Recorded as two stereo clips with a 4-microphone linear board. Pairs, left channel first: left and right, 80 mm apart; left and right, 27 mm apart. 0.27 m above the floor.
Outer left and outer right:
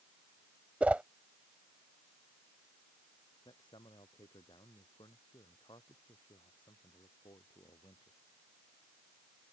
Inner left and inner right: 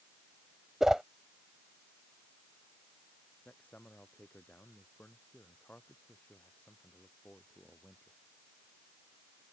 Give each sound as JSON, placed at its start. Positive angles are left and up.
{"t": 0.8, "sound": "a whoosh", "side_deg": -15}
{"t": 3.5, "sound": "a man speaking", "side_deg": 85}